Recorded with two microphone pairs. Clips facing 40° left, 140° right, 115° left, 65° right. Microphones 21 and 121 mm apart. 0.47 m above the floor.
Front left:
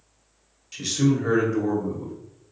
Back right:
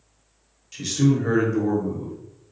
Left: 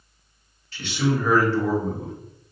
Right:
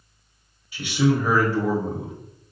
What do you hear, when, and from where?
0.7 s a man speaking: 30° right, 0.9 m